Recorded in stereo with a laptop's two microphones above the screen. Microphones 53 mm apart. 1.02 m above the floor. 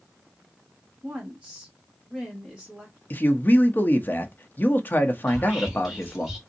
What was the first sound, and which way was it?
A woman speaking, 20° right (ahead or behind).